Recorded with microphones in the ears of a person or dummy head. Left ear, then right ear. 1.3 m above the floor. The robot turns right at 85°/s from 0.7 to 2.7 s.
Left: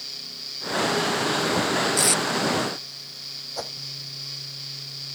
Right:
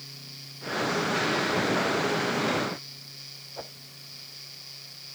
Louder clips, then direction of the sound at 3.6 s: Left 7 dB; 70° left (ahead or behind).